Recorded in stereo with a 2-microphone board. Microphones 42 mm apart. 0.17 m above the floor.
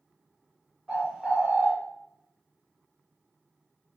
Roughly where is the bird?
Centre.